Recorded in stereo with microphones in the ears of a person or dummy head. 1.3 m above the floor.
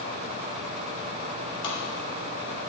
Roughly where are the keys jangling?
No keys jangling in this recording.